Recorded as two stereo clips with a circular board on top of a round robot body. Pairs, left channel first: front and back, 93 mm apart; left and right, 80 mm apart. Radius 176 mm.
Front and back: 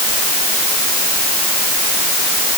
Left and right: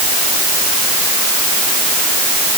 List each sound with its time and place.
Only background noise.